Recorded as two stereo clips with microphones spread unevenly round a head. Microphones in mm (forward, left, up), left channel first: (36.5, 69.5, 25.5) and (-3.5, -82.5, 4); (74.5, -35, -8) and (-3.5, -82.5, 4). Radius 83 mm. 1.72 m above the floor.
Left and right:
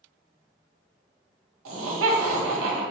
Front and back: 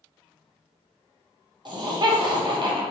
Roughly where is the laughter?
Behind right.